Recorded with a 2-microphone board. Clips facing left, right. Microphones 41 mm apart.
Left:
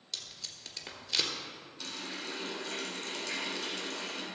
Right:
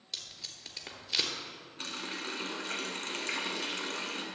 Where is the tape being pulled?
5° right (ahead or behind), 1.4 m.